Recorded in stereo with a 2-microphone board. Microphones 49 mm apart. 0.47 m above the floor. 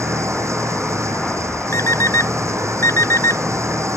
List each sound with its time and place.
0.0 s an engine running: 80° right
1.7 s an alarm clock: 85° left